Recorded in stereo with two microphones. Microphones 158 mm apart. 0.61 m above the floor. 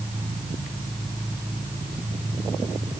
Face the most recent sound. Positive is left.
No sound to turn to.